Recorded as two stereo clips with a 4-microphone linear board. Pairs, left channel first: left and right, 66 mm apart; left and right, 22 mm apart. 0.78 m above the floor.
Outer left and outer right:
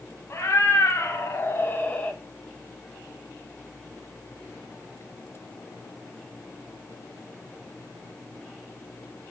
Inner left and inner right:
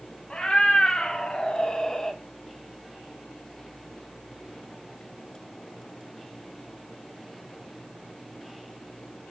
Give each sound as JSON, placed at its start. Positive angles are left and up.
{"t": 0.3, "sound": "a cat meowing", "side_deg": 50, "distance_m": 1.1}